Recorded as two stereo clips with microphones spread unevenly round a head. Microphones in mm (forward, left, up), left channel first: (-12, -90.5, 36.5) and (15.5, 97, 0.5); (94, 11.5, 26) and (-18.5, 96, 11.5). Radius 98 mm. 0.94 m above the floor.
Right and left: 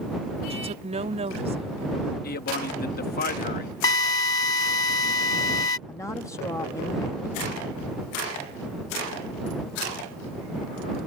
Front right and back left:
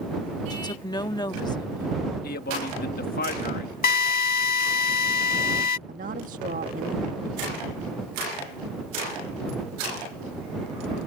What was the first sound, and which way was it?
A woman speaking, 25° left.